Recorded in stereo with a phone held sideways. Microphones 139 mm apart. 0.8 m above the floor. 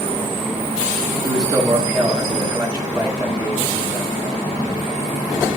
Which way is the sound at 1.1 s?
25° right (ahead or behind).